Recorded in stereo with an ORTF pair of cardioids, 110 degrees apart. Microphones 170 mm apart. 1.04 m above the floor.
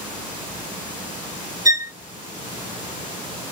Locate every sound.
1.6 s a violin: 20° right, 1.1 m